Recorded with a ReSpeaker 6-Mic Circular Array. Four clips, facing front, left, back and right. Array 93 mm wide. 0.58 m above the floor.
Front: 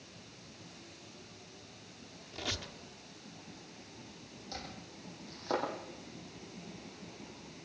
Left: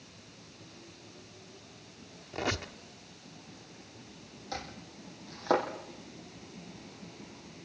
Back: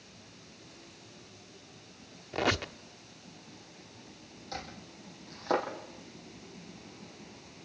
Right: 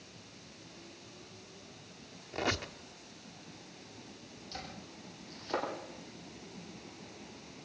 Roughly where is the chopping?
Left.